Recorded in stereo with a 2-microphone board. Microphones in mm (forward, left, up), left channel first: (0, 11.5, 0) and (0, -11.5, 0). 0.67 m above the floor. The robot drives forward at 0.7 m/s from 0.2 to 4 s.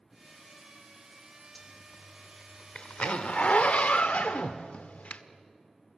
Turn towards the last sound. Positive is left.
turn(degrees=75)  # may be behind; listen again after turning